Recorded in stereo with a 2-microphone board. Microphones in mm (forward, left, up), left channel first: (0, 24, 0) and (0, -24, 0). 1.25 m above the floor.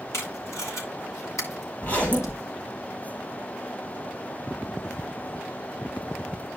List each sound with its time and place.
0.1 s tape being pulled: 80° left, 2.5 m
1.8 s a zipper: 35° left (ahead or behind), 5 m